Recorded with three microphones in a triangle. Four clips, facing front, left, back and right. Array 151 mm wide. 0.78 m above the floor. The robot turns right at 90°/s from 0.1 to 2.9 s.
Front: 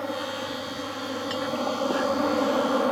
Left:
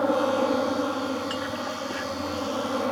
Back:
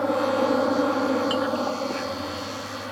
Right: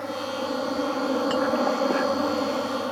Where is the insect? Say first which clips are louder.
Left 7 dB, back 9 dB; 120° left; by 2.9 s 15° left.